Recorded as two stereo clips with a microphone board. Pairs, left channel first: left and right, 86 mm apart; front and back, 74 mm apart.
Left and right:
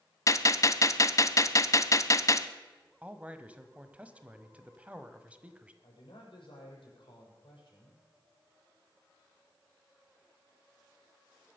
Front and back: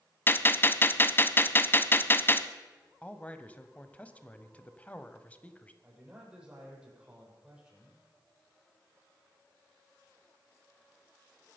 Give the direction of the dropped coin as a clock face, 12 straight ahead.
No dropped coin in this recording.